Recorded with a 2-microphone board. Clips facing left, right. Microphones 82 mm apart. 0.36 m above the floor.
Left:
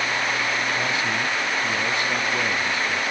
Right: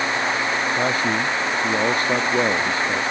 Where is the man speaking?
40° right (ahead or behind).